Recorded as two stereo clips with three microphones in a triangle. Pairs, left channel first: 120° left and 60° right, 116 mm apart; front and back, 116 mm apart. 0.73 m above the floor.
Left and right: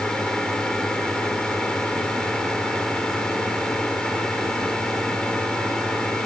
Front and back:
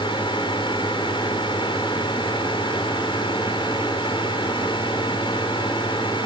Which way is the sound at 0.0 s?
35° left.